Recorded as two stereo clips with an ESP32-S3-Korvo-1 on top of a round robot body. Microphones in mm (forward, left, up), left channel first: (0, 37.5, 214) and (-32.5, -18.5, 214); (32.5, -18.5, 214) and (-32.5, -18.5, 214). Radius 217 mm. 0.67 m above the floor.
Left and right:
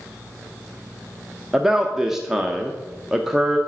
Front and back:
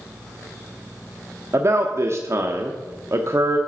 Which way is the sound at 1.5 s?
155° left.